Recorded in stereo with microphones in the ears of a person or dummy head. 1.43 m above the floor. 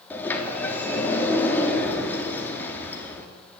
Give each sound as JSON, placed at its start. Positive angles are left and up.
{"t": 0.1, "sound": "a sliding door", "side_deg": 5, "distance_m": 3.5}